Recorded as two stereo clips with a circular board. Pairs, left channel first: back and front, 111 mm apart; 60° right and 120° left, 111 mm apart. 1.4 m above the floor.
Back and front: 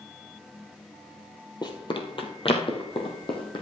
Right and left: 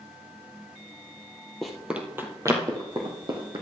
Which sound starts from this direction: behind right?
Running footsteps, at 1.6 s.